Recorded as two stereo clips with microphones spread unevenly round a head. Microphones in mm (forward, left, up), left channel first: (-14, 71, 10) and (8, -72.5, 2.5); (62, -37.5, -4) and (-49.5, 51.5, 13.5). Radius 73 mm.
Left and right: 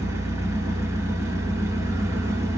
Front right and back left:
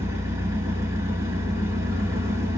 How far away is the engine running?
About 1.4 m.